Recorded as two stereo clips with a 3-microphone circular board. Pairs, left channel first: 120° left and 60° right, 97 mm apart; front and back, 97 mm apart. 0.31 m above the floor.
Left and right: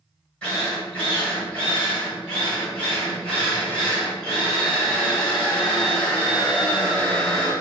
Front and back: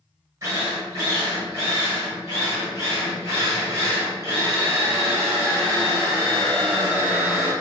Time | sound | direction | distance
0.4 | a drill | 170° right | 1.3 m